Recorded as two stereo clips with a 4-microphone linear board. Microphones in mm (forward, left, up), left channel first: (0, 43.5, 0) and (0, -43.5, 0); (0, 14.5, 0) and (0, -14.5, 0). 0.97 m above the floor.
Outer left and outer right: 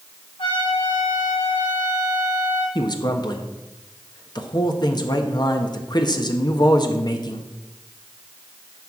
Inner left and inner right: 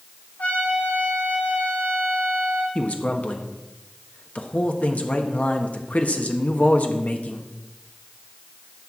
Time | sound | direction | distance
0.4 | a trumpet | 80° left | 6 m
2.8 | a man speaking | 55° left (ahead or behind) | 1.3 m